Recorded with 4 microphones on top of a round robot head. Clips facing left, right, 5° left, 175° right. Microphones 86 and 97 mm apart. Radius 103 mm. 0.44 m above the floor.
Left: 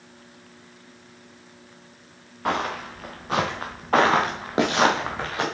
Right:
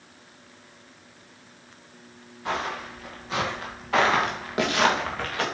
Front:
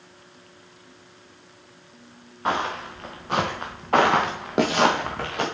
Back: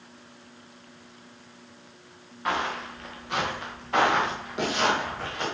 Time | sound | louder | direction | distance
2.5 | footsteps | left 4 dB, front 3 dB | 65° left | 3 m